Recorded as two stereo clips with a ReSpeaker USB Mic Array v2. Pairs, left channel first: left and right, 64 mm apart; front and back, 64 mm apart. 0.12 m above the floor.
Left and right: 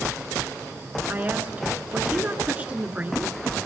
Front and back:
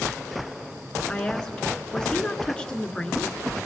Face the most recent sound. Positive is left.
turn(degrees=-60)